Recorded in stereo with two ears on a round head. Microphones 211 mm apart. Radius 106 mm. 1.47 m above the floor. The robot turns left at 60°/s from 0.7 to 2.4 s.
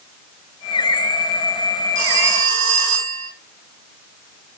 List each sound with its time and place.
1.9 s a phone ringing: 80° right, 6.5 m; by 3.3 s 70° right (ahead or behind), 6.5 m